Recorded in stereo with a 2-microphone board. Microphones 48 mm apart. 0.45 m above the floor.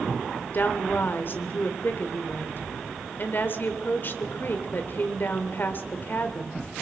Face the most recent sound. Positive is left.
turn(degrees=45)  # may be behind; listen again after turning